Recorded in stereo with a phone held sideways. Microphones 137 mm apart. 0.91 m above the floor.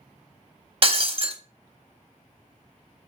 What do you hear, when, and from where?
0.8 s breaking glass: 45° right (ahead or behind), 0.7 m